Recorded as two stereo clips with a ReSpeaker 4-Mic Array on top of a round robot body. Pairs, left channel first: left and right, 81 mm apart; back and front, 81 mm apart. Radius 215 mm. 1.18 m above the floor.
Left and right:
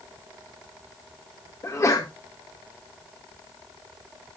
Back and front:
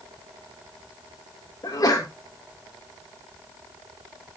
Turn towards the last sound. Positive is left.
turn(degrees=140)